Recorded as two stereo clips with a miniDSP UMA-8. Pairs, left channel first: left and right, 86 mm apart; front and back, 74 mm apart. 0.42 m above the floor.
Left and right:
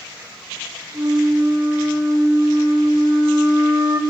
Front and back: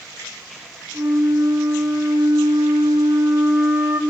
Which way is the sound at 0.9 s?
125° right.